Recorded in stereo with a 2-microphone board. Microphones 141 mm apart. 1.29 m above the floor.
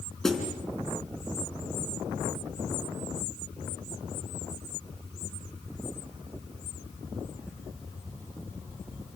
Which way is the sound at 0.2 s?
5° left (ahead or behind).